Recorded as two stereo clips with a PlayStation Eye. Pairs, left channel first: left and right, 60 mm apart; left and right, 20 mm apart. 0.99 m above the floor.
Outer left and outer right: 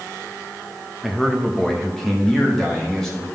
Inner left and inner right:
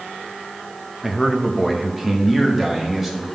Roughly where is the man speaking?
Centre.